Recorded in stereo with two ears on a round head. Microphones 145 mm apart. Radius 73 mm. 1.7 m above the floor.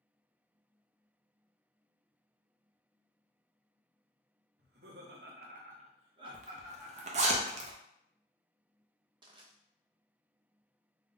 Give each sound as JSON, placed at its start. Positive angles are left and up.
{"t": 4.6, "sound": "laughter", "side_deg": -65, "distance_m": 0.8}
{"t": 6.3, "sound": "a zipper", "side_deg": -45, "distance_m": 0.5}
{"t": 9.2, "sound": "crushing", "side_deg": -30, "distance_m": 0.5}